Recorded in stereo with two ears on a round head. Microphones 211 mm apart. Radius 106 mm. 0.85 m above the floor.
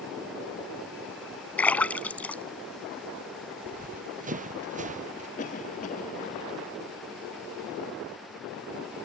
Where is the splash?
5° left (ahead or behind).